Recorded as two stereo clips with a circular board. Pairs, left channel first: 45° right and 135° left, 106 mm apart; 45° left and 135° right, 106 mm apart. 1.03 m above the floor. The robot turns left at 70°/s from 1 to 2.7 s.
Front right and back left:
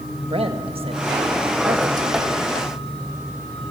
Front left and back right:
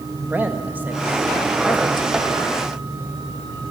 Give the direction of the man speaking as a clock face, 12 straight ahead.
7 o'clock.